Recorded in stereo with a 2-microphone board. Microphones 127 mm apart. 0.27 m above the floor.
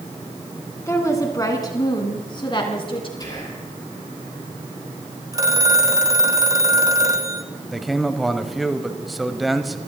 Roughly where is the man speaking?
Centre.